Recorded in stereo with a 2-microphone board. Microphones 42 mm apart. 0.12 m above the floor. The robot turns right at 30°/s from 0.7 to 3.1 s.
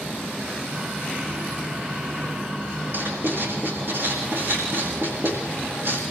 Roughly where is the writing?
Right.